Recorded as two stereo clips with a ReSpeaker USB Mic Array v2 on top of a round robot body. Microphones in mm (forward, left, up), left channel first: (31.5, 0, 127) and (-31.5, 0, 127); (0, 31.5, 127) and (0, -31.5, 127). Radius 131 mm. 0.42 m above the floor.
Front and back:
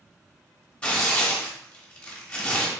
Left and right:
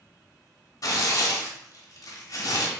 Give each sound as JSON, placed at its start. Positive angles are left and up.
{"t": 0.8, "sound": "tearing paper", "azimuth_deg": 70, "distance_m": 1.0}